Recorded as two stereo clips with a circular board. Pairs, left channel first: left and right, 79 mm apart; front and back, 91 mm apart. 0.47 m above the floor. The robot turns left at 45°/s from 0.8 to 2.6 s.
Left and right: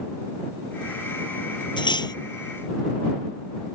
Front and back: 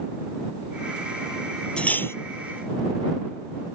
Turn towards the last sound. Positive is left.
turn(degrees=40)